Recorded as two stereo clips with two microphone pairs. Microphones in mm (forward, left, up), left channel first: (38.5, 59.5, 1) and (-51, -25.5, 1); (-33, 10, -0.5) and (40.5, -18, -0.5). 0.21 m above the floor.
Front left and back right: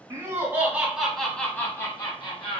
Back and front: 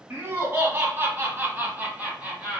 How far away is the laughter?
About 1.6 m.